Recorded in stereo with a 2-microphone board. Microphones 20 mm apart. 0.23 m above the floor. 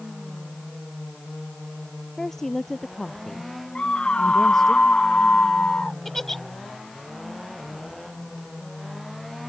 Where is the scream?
70° left (ahead or behind).